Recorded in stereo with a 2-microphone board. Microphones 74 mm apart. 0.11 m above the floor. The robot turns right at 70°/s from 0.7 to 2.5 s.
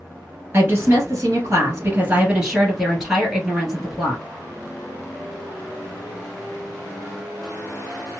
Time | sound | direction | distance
0.5 | a woman speaking | 130° right | 1.8 m